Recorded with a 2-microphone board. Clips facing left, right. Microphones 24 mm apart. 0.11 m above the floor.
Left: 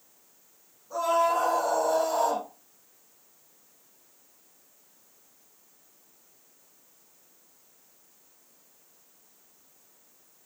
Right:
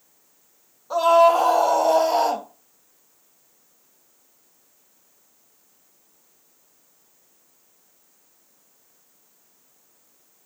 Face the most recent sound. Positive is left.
turn(degrees=-45)  # may be behind; listen again after turning